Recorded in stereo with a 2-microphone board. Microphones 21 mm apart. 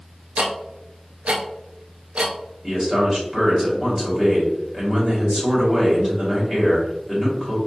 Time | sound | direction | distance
0.4 | ticking | 90° right | 0.6 m
2.6 | a man speaking | 25° right (ahead or behind) | 1.4 m